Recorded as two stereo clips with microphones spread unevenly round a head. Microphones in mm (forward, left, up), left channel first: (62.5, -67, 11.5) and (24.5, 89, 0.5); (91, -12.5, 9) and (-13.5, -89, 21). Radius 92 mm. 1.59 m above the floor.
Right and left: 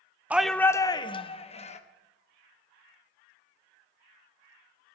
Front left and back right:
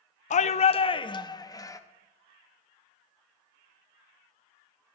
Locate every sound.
0.3 s a shout: 25° left, 0.6 m; by 1.8 s 30° right, 1.5 m